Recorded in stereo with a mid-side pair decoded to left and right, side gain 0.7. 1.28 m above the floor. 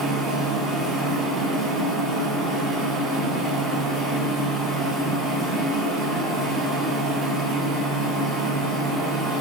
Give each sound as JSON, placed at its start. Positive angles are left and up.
{"t": 0.0, "sound": "a machine running", "azimuth_deg": -35, "distance_m": 1.5}